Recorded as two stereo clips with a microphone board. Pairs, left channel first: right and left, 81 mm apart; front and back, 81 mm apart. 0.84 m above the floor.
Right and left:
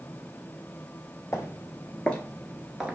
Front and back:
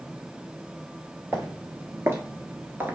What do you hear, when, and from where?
1.3 s footsteps: 130° right, 1.1 m; by 3.0 s 145° left, 0.8 m